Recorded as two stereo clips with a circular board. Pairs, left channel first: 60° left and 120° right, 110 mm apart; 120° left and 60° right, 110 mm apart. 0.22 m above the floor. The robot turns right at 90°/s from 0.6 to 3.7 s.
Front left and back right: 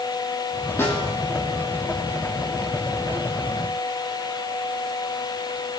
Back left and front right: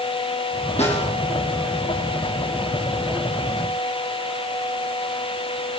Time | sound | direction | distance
0.8 | a snare drum | 125° left | 5 m